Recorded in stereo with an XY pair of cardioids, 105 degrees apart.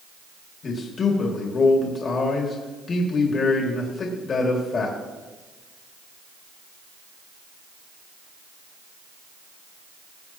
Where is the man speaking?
45° left, 2.5 m.